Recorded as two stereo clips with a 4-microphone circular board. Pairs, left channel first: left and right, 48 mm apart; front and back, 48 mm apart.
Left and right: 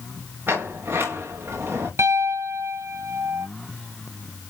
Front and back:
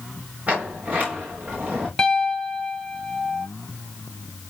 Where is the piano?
75° right, 0.8 m.